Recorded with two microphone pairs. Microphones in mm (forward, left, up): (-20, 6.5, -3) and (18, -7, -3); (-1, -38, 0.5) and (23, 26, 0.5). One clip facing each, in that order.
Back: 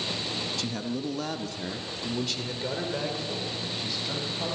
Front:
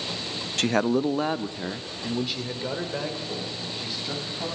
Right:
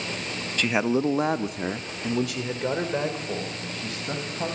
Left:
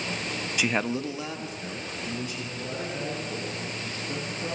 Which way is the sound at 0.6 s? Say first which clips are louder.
Front 9 dB, right 5 dB; 5° right.